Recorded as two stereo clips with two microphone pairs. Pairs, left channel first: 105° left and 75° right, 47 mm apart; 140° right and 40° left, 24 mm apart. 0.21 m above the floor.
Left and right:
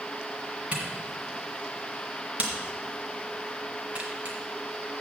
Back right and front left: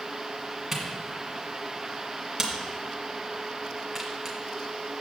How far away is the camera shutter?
About 2.0 m.